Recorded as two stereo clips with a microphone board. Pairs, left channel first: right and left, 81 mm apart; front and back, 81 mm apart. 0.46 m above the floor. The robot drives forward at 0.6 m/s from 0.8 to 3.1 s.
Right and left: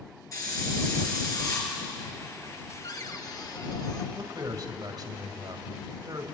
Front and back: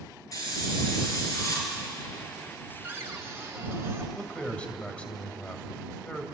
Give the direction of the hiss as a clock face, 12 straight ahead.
1 o'clock.